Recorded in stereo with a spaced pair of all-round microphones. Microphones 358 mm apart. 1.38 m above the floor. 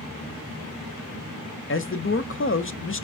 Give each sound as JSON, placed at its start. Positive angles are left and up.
{"t": 1.7, "sound": "a man speaking", "side_deg": 35, "distance_m": 0.6}